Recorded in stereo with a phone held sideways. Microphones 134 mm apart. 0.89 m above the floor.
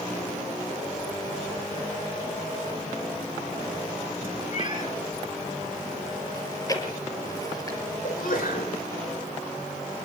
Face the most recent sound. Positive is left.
turn(degrees=80)